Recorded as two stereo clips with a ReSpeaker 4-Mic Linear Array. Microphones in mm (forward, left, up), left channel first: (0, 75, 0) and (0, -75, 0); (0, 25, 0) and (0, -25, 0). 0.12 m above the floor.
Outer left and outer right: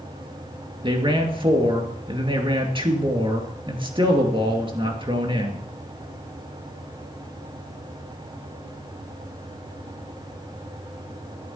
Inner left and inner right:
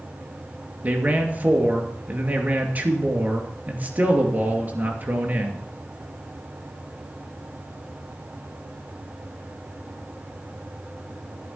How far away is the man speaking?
About 2.5 m.